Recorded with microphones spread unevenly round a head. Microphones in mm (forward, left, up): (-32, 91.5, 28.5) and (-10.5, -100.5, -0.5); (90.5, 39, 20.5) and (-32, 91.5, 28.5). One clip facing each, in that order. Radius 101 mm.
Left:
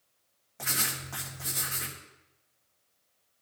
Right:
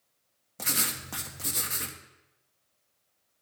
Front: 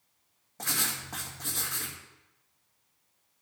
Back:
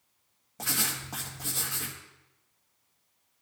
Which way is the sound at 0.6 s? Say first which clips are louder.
Right 2 dB, back 1 dB; 125° right.